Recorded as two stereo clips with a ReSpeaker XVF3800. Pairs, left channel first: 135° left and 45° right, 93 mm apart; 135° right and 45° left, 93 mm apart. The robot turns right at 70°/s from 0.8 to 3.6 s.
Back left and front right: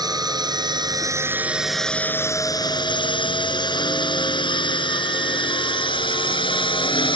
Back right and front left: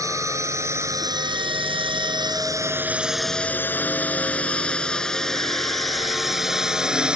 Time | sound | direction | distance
0.0 | a drone | 5° right | ?